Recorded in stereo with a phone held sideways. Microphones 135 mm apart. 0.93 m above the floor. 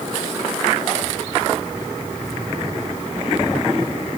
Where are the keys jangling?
No keys jangling in this recording.